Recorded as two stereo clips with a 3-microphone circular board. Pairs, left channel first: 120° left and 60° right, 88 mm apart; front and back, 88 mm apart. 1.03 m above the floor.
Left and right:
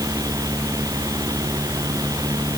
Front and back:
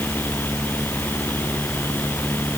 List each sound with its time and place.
Only background noise.